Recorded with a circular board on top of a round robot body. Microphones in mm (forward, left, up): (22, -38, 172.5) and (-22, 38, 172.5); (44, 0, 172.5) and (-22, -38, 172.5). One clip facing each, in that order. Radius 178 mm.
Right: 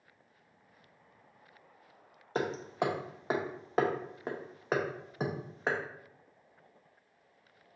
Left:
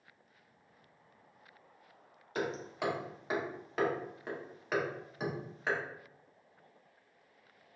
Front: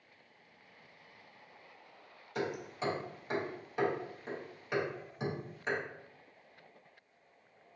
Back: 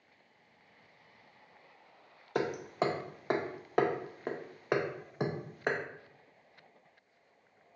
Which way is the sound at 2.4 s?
115° right.